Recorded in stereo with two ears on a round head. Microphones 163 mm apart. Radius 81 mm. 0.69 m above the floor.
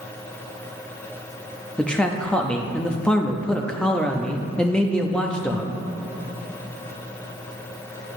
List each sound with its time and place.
1.8 s a man speaking: 5° left (ahead or behind), 0.5 m